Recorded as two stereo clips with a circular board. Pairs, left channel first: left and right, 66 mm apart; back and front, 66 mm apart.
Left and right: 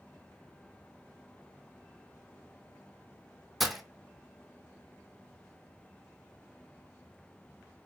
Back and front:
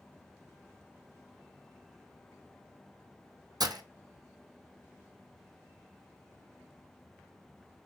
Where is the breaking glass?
Straight ahead, 0.5 m.